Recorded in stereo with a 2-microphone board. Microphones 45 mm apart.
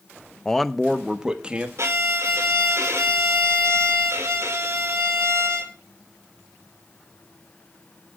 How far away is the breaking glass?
No breaking glass in this recording.